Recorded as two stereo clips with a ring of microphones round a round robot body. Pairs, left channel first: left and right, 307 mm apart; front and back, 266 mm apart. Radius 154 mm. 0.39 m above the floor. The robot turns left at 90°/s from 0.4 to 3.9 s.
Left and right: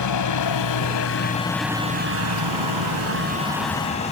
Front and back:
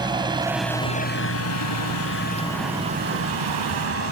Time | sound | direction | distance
0.0 | a helicopter | 110° left | ?